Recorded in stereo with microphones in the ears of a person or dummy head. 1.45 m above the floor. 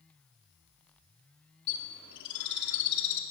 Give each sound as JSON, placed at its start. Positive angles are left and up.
{"t": 1.7, "sound": "a bird", "side_deg": 65, "distance_m": 2.5}